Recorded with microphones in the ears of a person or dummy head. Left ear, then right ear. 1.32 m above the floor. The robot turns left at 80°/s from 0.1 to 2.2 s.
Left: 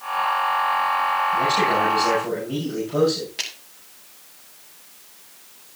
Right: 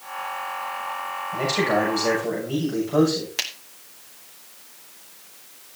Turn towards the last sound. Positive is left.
turn(degrees=-45)  # may be behind; listen again after turning